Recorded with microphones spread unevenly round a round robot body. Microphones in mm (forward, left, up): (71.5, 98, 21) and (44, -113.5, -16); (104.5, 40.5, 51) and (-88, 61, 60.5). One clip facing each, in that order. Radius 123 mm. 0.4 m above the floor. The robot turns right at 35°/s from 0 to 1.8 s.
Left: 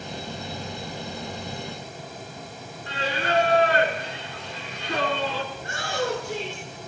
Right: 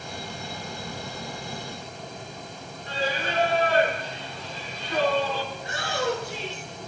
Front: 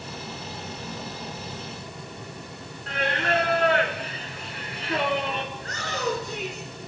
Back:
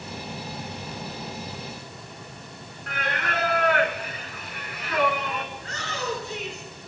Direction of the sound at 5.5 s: 45° left.